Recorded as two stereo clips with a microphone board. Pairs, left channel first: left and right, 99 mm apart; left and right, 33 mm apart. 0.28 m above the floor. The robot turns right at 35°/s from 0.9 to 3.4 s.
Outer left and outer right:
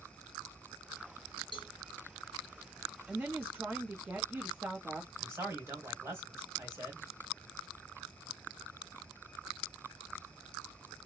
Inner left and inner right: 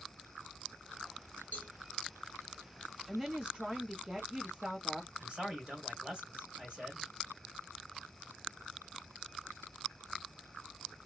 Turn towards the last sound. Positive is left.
turn(degrees=-30)  # may be behind; listen again after turning